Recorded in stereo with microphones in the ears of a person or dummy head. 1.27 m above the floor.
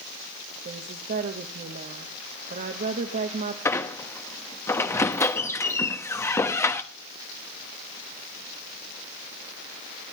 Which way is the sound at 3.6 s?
10° left (ahead or behind).